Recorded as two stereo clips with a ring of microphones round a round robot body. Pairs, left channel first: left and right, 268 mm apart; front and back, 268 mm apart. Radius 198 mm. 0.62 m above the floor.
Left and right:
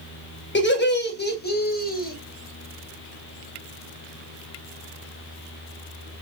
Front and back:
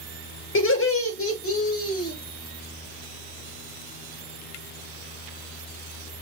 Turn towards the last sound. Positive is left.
turn(degrees=30)